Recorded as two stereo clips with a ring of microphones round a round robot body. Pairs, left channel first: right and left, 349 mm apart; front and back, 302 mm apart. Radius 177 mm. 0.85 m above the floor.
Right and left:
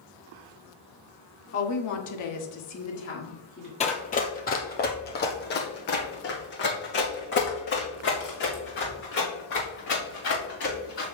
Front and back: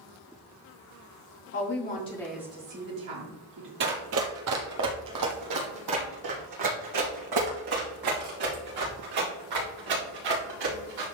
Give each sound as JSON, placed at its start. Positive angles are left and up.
{"t": 1.5, "sound": "a woman speaking", "azimuth_deg": -45, "distance_m": 1.6}
{"t": 3.8, "sound": "running footsteps", "azimuth_deg": -150, "distance_m": 1.0}